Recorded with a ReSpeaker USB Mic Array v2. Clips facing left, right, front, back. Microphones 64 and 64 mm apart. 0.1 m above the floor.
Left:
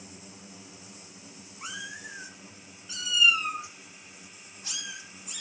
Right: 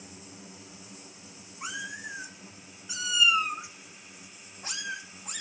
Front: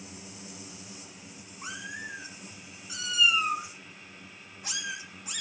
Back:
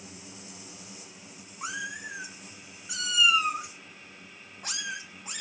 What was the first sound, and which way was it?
A cat meowing, 175° right.